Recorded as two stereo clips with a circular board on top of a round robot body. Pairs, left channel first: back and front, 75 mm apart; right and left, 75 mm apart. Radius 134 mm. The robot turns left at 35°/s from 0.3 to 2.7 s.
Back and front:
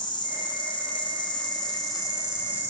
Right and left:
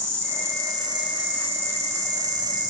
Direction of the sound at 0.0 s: 155° right.